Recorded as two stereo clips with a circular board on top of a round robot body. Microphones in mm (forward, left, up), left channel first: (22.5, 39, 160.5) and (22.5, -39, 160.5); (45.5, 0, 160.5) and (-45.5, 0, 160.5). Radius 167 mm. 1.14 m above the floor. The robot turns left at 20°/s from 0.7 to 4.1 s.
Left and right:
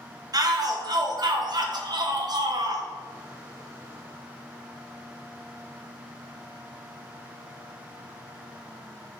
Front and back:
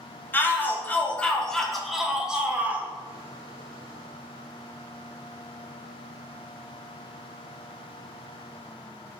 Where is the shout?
65° right, 0.6 m; by 2.9 s 110° right, 0.6 m.